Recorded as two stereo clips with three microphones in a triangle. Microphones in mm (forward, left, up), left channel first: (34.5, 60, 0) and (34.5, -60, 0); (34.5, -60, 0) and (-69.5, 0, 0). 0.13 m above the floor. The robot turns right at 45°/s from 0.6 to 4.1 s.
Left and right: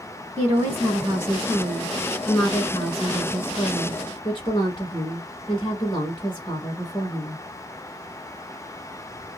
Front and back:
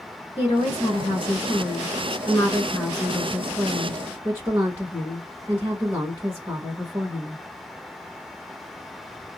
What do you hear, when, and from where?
0.4 s a woman speaking: 60° right, 1.4 m; by 7.4 s 100° left, 1.4 m